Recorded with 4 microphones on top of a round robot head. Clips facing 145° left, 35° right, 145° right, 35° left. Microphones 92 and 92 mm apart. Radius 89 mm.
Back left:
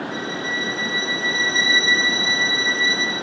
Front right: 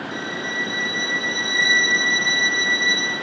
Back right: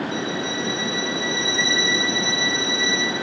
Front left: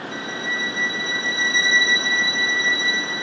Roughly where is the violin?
Ahead left.